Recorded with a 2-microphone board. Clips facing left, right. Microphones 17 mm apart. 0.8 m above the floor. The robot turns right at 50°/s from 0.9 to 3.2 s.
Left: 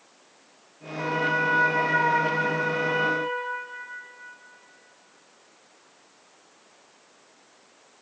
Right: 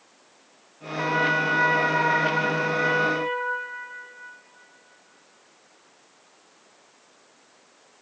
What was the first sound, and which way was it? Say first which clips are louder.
A trumpet: right 2 dB; 140° right.